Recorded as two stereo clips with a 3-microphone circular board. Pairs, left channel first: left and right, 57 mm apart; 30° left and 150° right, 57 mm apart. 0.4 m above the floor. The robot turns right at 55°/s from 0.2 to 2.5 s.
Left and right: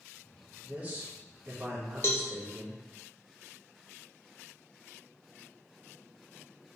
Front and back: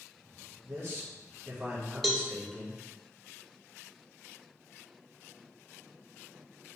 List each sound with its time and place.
0.6 s a man speaking: 150° right, 1.5 m; by 2.8 s 50° right, 1.5 m
2.0 s a cowbell: 120° left, 0.5 m; by 2.2 s 130° left, 0.5 m